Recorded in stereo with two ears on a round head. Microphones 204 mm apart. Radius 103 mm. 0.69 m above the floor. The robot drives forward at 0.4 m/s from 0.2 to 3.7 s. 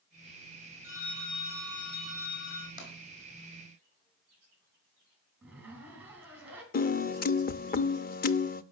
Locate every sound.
0.8 s a phone ringing: 55° left (ahead or behind), 4 m; by 2.7 s 65° left (ahead or behind), 4 m
2.8 s tapping: 35° left (ahead or behind), 4 m
5.4 s a zipper: 5° right (ahead or behind), 4.5 m
6.7 s a piano: 40° left (ahead or behind), 0.7 m